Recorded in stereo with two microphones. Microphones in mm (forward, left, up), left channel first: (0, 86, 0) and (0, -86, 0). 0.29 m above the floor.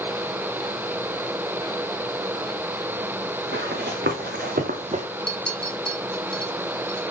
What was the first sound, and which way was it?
Running footsteps, 80° right.